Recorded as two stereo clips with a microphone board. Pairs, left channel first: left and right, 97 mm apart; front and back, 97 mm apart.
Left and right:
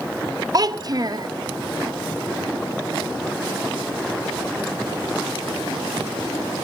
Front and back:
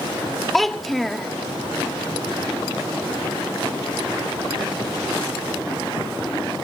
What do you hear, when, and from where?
0.5 s a child speaking: 90° right, 1.0 m